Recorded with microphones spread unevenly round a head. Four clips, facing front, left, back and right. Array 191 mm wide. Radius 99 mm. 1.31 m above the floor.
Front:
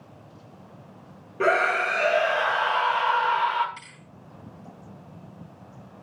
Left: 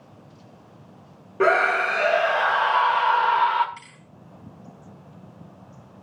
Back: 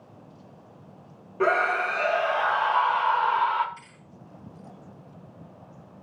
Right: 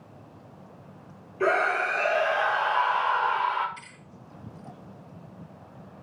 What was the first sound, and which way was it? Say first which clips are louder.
A scream: left 5 dB, front 1 dB; 75° left.